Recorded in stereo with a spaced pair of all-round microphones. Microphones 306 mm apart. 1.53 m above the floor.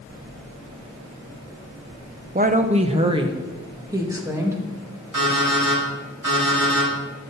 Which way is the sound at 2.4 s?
30° right (ahead or behind).